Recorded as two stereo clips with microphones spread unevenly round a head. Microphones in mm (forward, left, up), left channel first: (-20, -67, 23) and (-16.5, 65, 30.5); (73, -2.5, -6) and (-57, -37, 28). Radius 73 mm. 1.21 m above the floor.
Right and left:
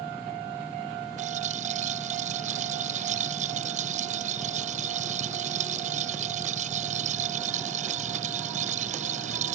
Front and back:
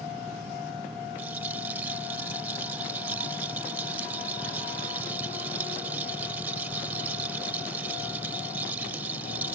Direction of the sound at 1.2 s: 120° left.